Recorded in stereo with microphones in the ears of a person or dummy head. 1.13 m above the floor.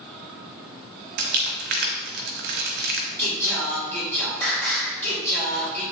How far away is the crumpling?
About 1.2 m.